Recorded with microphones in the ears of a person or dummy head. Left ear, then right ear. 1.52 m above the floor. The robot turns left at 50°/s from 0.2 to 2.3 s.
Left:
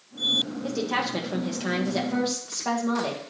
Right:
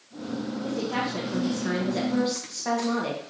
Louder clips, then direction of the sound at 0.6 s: Left 2 dB; 85° left.